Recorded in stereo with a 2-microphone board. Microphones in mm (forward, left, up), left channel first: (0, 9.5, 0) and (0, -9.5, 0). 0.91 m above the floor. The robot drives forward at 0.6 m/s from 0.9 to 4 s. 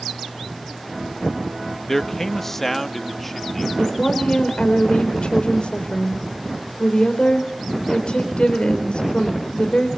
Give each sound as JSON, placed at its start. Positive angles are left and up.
{"t": 1.9, "sound": "a man speaking", "side_deg": 20, "distance_m": 1.1}
{"t": 3.8, "sound": "a woman speaking", "side_deg": 60, "distance_m": 4.0}